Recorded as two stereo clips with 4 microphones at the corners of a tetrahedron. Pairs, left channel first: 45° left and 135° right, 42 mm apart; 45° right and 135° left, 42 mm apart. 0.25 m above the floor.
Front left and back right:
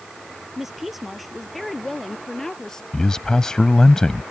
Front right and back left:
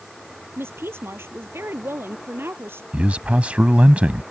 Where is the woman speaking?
140° left; by 2.8 s 120° left.